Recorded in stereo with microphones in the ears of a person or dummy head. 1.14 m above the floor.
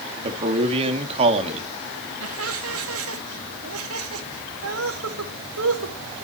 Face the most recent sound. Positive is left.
turn(degrees=-80)